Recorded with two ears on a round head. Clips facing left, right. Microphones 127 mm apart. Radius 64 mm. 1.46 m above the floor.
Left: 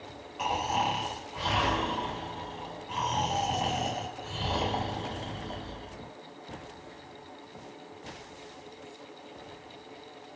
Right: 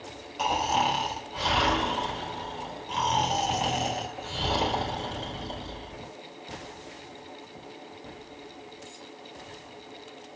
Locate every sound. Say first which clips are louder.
0.4 s snoring: right 4 dB; 40° right (ahead or behind), 4 m